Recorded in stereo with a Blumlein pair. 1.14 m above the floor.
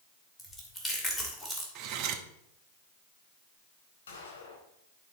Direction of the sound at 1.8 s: 40° right.